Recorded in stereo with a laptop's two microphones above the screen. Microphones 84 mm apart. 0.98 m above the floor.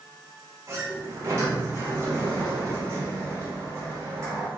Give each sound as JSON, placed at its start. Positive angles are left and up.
{"t": 0.7, "sound": "a sliding door", "side_deg": -35, "distance_m": 1.1}